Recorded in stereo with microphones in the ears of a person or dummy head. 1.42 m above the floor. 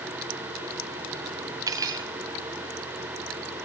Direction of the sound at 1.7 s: 15° right (ahead or behind).